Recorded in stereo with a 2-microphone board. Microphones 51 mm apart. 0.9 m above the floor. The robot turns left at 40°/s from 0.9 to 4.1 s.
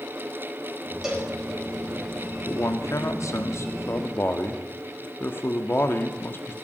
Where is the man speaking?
110° left, 1.6 m; by 6.5 s 45° left, 1.6 m.